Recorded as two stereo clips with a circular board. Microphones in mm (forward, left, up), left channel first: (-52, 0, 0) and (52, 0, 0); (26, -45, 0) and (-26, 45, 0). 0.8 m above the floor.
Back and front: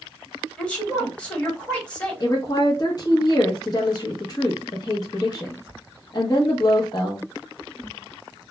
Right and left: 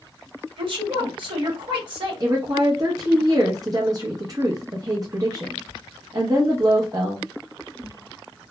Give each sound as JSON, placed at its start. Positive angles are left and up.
{"t": 0.6, "sound": "a woman speaking", "azimuth_deg": 100, "distance_m": 1.2}
{"t": 2.2, "sound": "a woman speaking", "azimuth_deg": 150, "distance_m": 0.7}